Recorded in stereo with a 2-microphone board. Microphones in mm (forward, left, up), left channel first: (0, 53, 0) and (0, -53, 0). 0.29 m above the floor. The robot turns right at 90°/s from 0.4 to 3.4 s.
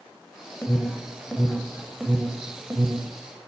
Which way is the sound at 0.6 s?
20° left (ahead or behind).